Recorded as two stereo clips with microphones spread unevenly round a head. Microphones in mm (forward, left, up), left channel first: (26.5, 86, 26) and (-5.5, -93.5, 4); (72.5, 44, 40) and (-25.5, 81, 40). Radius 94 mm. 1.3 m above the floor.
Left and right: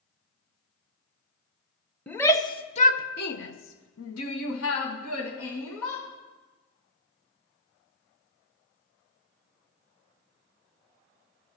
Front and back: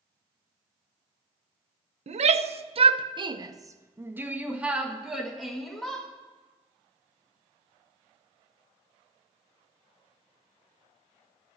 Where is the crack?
No crack in this recording.